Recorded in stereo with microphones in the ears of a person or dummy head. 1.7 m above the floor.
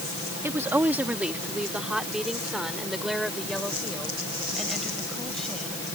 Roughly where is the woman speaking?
Centre.